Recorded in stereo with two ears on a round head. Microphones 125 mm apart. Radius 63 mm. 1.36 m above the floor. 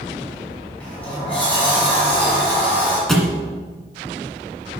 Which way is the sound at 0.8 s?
10° left (ahead or behind).